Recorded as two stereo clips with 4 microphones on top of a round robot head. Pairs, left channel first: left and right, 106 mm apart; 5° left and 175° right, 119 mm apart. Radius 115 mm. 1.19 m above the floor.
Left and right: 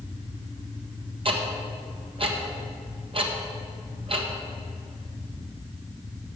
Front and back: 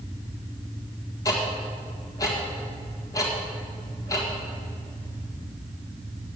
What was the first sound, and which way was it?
Ticking, 55° right.